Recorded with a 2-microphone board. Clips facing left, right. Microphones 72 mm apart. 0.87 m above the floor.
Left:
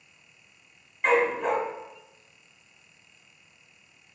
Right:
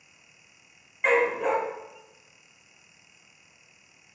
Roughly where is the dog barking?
Centre.